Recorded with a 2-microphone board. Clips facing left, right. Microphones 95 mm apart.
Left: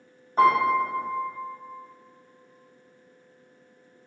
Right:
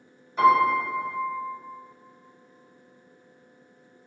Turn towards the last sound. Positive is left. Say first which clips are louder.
# right 1 dB
turn(degrees=40)  # may be behind; listen again after turning